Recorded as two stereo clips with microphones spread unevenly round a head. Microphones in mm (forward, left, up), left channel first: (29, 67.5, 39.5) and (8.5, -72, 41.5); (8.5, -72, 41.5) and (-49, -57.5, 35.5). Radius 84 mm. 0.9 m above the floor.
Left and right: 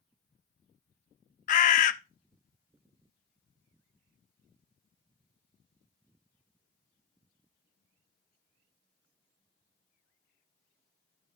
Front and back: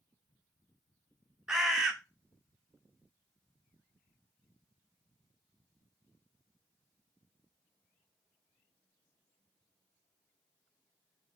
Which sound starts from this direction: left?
A bird, at 1.5 s.